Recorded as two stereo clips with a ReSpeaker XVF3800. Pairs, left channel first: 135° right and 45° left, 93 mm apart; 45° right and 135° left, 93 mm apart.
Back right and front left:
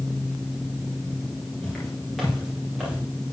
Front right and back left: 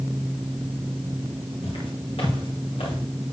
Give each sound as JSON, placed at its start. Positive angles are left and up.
{"t": 1.6, "sound": "footsteps", "azimuth_deg": -45, "distance_m": 6.0}